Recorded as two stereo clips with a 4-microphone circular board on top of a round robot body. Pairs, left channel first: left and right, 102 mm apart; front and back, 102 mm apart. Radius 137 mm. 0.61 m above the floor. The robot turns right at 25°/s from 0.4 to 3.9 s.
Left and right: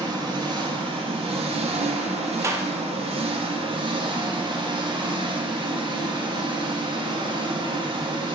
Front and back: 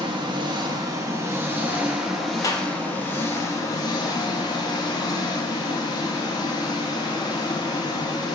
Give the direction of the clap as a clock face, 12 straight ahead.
1 o'clock.